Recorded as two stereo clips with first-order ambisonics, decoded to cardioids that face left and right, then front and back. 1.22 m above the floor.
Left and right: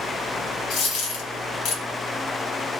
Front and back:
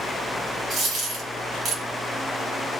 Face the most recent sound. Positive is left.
turn(degrees=115)